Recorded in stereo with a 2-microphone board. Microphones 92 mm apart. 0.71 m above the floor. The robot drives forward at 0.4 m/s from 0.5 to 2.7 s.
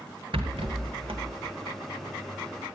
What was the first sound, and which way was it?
A rattle, 85° right.